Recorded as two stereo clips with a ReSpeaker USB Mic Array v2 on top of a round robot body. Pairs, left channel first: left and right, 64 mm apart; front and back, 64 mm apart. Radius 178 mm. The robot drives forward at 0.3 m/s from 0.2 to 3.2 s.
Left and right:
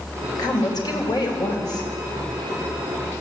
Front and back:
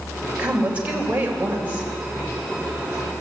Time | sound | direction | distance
0.4 | a woman speaking | 110° left | 3.5 m